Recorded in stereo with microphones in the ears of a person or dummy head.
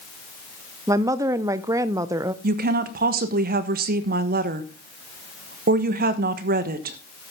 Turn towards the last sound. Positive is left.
turn(degrees=-45)  # may be behind; listen again after turning